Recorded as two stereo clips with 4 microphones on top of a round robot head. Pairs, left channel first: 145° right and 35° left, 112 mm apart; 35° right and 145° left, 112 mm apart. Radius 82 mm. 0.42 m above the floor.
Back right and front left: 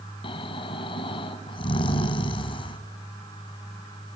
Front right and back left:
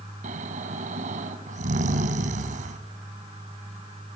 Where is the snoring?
165° left, 1.1 m.